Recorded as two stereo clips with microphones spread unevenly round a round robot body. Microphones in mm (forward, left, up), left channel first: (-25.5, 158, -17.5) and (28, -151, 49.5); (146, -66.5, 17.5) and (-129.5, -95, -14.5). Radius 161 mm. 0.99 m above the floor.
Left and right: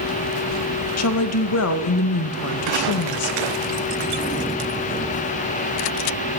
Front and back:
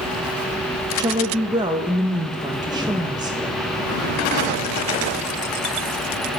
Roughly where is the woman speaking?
Behind left.